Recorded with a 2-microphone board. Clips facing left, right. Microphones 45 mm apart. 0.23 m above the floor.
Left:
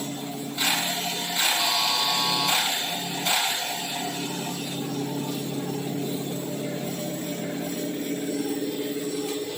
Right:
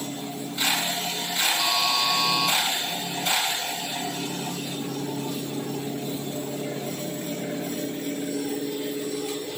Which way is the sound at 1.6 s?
10° left (ahead or behind).